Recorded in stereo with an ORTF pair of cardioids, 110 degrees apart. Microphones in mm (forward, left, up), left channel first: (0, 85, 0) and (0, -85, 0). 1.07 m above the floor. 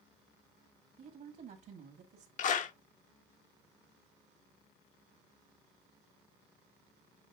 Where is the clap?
50° left, 0.9 m.